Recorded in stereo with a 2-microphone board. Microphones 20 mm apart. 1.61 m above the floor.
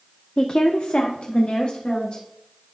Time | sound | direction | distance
0.4 | a woman speaking | 30° left (ahead or behind) | 0.5 m